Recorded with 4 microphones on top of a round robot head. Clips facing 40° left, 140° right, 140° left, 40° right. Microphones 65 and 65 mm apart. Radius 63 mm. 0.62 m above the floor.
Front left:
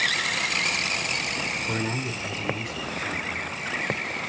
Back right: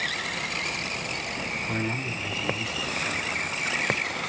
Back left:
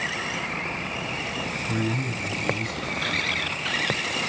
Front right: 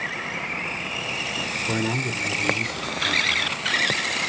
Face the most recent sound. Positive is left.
turn(degrees=-35)